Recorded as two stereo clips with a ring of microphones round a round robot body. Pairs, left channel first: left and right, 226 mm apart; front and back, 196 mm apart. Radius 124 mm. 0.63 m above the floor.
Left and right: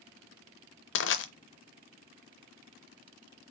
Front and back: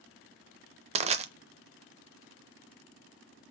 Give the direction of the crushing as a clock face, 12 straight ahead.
8 o'clock.